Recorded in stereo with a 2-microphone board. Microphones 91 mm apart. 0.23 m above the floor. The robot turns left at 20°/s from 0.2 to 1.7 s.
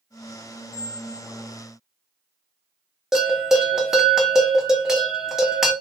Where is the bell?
5° right (ahead or behind), 0.6 m.